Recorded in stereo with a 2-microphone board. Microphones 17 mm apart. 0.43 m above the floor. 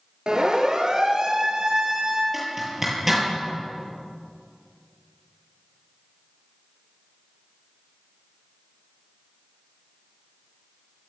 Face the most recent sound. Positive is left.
turn(degrees=-15)  # may be behind; listen again after turning